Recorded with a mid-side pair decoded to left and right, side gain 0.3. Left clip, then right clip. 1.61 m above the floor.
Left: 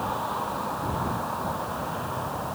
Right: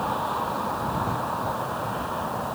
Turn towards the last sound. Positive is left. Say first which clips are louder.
# right 2 dB
turn(degrees=-30)